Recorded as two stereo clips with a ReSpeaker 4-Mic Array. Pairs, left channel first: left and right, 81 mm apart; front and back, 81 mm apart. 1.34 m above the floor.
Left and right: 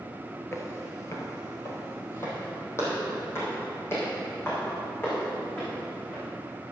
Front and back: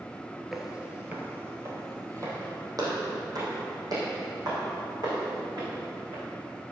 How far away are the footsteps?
About 1.5 m.